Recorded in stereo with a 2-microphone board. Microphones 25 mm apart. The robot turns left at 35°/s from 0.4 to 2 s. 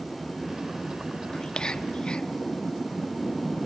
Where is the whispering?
30° left (ahead or behind), 0.7 m; by 2.3 s 40° left (ahead or behind), 0.7 m.